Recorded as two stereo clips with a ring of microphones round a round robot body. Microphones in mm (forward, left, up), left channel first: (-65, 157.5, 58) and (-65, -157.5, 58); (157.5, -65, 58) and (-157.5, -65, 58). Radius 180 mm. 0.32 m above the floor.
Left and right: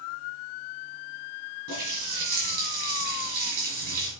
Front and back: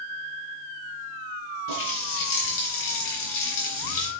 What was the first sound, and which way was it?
A running tap, 25° right.